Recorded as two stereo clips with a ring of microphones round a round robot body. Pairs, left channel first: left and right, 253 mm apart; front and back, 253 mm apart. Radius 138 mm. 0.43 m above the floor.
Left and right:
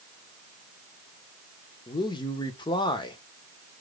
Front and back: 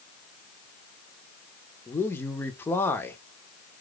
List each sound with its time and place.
1.9 s a man speaking: 65° left, 0.8 m